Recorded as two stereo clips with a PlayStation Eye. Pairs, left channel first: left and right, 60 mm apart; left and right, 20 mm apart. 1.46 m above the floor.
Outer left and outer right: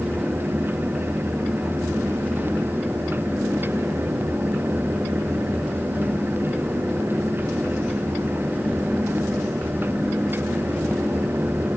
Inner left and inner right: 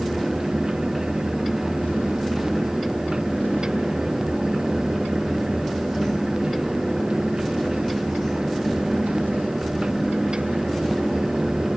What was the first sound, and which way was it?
Only background noise.